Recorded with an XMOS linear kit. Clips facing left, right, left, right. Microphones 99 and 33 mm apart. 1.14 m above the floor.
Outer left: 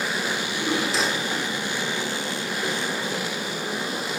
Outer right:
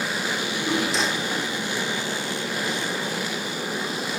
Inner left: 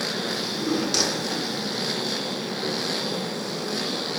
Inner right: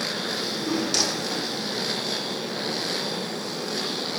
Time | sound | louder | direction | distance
0.3 | a drawer | outer right 2 dB, inner left 1 dB | centre (ahead or behind) | 1.0 m